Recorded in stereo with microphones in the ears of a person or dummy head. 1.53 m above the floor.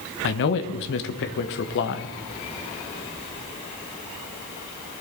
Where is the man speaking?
65° left (ahead or behind), 1.1 m.